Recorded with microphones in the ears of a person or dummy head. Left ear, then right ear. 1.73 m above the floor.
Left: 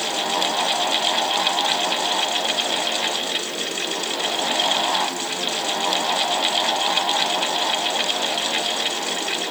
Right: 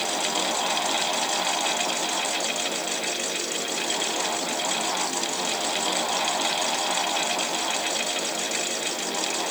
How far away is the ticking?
I don't hear ticking.